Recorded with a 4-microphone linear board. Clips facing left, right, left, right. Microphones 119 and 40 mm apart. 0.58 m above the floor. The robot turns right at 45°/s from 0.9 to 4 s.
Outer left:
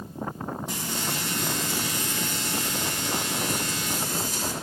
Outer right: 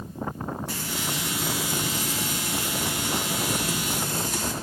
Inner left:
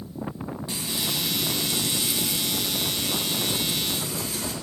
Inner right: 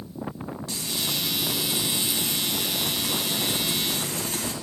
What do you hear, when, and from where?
0.7 s frying: 160° left, 1.5 m; by 4.5 s 60° right, 1.5 m